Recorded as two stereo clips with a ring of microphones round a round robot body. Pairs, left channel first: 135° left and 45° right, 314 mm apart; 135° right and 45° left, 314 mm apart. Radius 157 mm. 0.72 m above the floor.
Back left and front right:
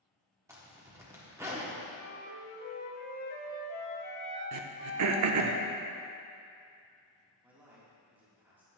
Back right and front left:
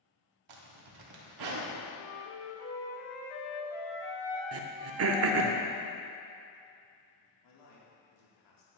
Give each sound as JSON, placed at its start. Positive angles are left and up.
{"t": 0.5, "sound": "a zipper", "azimuth_deg": 35, "distance_m": 1.2}
{"t": 1.9, "sound": "a flute", "azimuth_deg": -175, "distance_m": 3.0}
{"t": 4.5, "sound": "throat clearing", "azimuth_deg": -5, "distance_m": 0.6}
{"t": 7.4, "sound": "a man speaking", "azimuth_deg": -130, "distance_m": 1.7}